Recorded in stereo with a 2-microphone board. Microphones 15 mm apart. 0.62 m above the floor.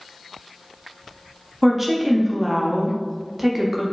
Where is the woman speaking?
15° right (ahead or behind), 0.5 m.